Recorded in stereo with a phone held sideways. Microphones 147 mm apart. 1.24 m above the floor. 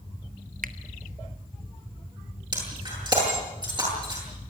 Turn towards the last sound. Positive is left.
turn(degrees=-30)  # may be behind; listen again after turning